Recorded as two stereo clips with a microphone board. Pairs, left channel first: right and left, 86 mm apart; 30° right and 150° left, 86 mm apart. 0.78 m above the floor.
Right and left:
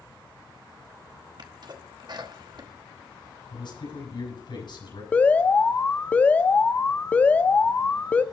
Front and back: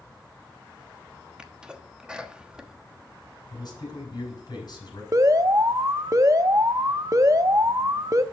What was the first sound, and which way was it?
A sneeze, 70° left.